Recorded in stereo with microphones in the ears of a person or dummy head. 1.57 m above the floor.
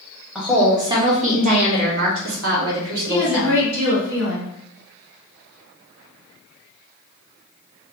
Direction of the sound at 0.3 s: Centre (ahead or behind).